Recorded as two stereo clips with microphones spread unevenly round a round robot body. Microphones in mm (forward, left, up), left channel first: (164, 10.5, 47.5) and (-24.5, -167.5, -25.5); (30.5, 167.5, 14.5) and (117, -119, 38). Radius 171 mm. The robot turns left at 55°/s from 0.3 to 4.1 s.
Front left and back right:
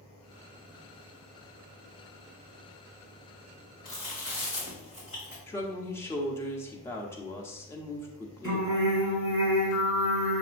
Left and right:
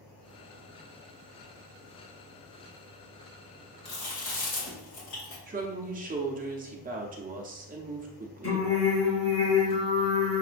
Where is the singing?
130° left, 1.5 m.